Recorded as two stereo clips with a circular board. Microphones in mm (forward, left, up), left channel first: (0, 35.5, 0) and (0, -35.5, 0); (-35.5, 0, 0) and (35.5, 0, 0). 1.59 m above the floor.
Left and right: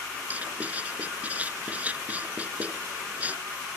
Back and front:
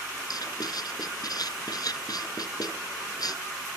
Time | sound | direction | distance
0.3 | writing | 160° right | ?